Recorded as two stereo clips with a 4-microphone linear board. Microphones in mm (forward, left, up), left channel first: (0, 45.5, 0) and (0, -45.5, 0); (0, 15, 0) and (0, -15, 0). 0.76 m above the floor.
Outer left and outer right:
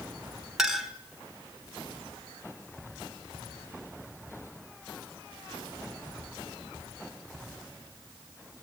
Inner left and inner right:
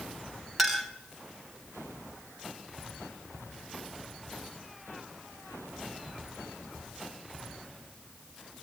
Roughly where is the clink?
Centre.